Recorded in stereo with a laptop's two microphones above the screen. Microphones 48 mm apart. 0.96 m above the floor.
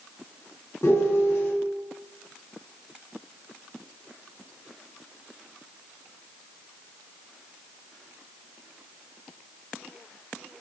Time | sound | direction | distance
0.8 | a piano | 60° left (ahead or behind) | 0.7 m